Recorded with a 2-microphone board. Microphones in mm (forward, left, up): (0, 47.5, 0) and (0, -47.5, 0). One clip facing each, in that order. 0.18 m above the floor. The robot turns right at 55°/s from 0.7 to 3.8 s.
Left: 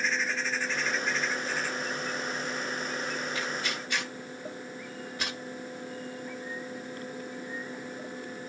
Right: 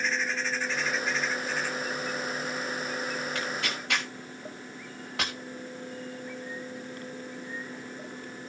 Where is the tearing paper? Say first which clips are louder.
Right 1 dB; 60° right (ahead or behind), 4.5 m; by 5.3 s 85° right, 4.5 m.